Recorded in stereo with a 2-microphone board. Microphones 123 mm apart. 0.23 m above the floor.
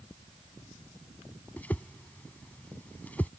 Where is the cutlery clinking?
I don't hear cutlery clinking.